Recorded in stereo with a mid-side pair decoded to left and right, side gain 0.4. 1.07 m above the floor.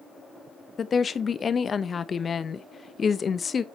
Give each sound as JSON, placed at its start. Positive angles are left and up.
{"t": 0.8, "sound": "a woman speaking", "azimuth_deg": 45, "distance_m": 0.7}